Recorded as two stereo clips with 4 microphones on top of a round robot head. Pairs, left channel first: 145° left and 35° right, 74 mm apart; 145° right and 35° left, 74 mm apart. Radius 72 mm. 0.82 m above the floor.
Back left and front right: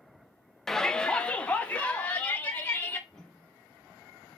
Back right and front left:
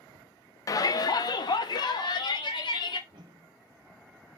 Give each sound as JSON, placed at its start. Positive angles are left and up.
{"t": 0.7, "sound": "a shout", "azimuth_deg": -130, "distance_m": 0.5}
{"t": 3.1, "sound": "a whoosh", "azimuth_deg": 60, "distance_m": 0.8}